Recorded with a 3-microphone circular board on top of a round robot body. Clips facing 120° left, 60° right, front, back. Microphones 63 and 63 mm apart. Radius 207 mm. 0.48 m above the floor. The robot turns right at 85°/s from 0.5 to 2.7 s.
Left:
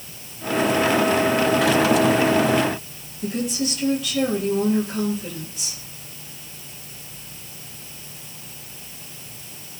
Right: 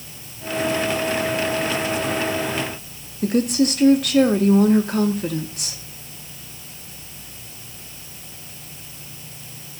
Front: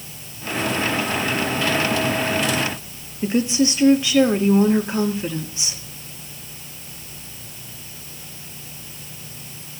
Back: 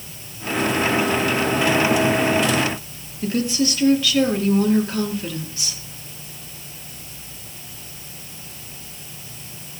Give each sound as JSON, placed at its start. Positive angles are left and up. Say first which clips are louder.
{"t": 3.2, "sound": "a woman speaking", "louder": "right 7 dB, front 2 dB", "azimuth_deg": -65, "distance_m": 1.9}